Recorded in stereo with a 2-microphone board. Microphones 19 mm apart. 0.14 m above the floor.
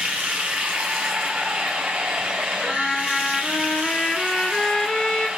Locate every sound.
0.0 s running water: 85° right, 2 m
2.6 s a trumpet: 35° left (ahead or behind), 2 m